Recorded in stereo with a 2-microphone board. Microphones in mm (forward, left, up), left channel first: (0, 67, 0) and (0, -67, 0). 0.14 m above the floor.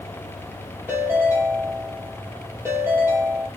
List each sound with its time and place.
0.9 s a ringtone: 20° right (ahead or behind), 2.5 m